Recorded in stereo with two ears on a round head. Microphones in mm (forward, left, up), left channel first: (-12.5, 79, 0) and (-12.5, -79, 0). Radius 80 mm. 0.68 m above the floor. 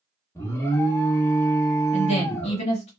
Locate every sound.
0.3 s an alarm: 15° left (ahead or behind), 0.8 m
1.9 s a woman speaking: 35° left (ahead or behind), 1.3 m